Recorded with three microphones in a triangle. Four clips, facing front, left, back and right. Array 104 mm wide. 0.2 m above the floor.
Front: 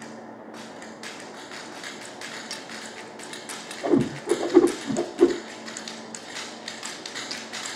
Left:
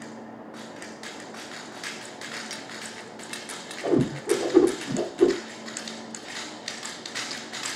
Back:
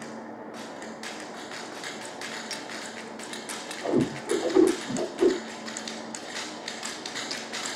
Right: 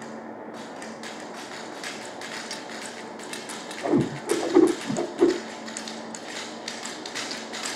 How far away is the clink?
About 2.5 m.